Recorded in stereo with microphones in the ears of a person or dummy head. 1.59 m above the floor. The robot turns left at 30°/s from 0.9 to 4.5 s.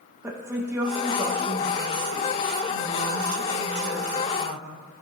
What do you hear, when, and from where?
0.2 s a woman speaking: 15° right, 1.6 m; by 5.0 s 120° right, 1.6 m